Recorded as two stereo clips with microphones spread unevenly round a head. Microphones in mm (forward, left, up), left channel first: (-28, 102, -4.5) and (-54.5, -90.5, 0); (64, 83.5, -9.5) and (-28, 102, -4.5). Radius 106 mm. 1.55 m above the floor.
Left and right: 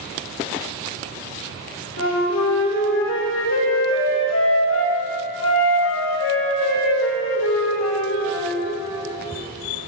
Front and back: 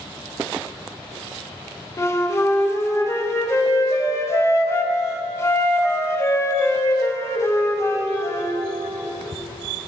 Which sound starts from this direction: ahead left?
A flute, at 2.0 s.